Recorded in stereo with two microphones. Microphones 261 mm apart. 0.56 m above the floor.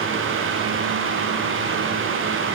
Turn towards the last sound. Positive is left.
No sound to turn to.